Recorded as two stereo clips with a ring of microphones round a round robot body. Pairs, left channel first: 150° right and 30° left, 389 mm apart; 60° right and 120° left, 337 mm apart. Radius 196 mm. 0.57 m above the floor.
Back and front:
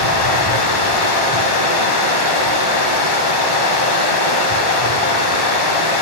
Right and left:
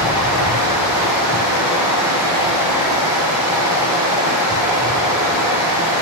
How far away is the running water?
About 1.4 m.